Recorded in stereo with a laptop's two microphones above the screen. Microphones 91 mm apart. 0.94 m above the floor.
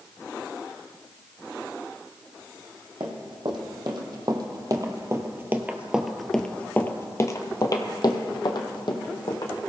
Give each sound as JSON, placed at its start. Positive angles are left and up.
{"t": 3.0, "sound": "running footsteps", "side_deg": -65, "distance_m": 2.0}